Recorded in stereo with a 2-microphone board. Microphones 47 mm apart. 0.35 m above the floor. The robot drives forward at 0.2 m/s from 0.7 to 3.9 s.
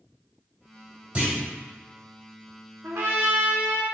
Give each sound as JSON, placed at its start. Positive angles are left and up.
{"t": 1.1, "sound": "a clunk", "side_deg": -30, "distance_m": 1.6}
{"t": 2.8, "sound": "a trumpet", "side_deg": -75, "distance_m": 0.9}